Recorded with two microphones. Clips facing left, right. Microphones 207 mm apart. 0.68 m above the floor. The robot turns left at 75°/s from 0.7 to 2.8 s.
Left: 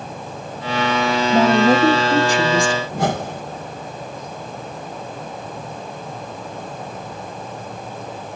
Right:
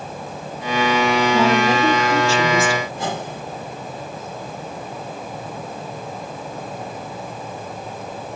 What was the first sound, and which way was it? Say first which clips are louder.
A woman speaking: left 7 dB; 95° left.